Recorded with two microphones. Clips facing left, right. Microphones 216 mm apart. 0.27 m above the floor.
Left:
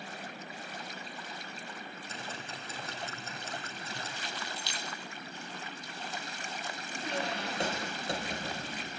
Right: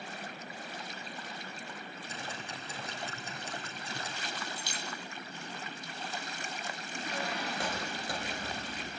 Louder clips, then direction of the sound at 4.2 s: Even; 50° right (ahead or behind).